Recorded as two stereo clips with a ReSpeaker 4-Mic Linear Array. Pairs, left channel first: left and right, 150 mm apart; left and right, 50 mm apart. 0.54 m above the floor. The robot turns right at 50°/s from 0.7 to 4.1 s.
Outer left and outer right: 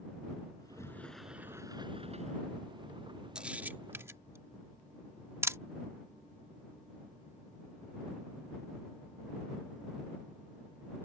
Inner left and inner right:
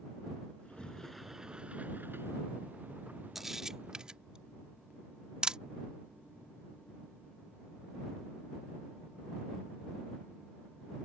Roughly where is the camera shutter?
Centre.